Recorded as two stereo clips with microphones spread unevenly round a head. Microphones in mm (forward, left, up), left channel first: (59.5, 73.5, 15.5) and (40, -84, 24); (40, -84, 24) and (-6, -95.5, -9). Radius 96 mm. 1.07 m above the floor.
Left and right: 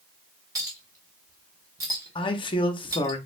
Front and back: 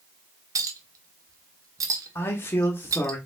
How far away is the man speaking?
About 0.8 m.